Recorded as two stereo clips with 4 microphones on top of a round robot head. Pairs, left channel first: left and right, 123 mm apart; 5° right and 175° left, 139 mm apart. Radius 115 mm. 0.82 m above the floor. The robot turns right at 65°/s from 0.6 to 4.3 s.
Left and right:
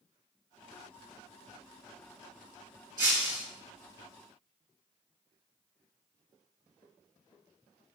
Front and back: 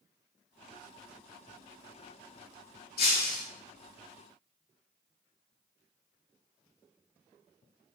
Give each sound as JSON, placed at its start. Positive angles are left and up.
{"t": 3.0, "sound": "breaking glass", "azimuth_deg": -25, "distance_m": 4.5}